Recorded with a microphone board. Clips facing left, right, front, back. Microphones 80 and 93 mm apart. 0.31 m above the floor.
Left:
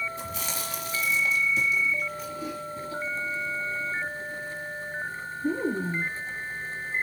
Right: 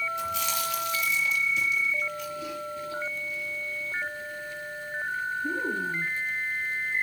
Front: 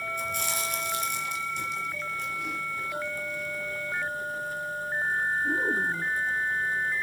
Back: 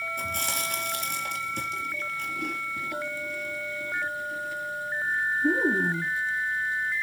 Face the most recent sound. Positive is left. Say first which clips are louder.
# right 5 dB, even
turn(degrees=145)